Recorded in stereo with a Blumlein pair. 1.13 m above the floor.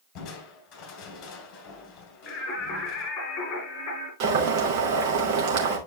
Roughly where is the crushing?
Ahead left.